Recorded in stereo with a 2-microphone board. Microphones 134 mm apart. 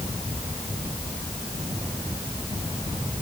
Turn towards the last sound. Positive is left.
No sound to turn to.